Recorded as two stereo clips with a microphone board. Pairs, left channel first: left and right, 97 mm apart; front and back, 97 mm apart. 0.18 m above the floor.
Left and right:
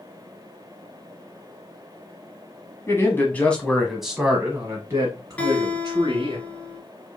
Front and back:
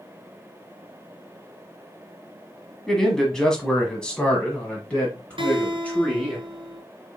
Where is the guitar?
165° left, 0.9 m.